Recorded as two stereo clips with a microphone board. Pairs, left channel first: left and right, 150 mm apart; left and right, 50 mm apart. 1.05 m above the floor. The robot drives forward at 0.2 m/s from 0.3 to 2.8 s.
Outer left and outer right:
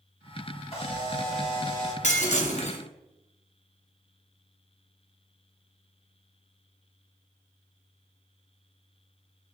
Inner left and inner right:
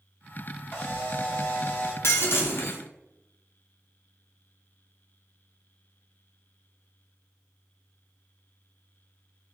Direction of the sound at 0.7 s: 40° left (ahead or behind).